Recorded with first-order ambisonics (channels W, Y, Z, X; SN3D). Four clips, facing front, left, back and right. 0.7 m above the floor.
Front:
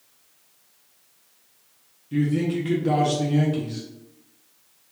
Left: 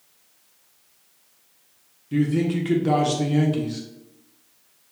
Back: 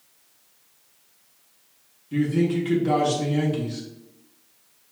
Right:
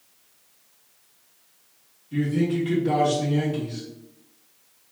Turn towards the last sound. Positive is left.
turn(degrees=90)